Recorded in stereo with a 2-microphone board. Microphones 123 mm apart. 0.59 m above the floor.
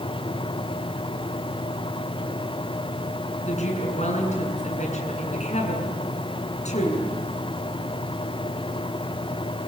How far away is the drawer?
No drawer in this recording.